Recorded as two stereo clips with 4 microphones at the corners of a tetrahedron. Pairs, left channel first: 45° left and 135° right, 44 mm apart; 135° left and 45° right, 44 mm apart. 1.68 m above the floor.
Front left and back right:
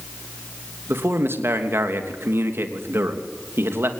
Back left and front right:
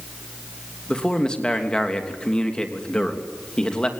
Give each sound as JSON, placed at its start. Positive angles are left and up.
{"t": 0.9, "sound": "a man speaking", "azimuth_deg": -155, "distance_m": 3.0}